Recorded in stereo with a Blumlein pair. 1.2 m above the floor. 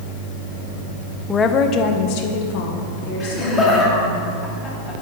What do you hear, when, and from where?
1.3 s a woman speaking: 10° left, 0.5 m; by 4.2 s 60° left, 2.5 m
3.2 s laughter: 10° left, 2 m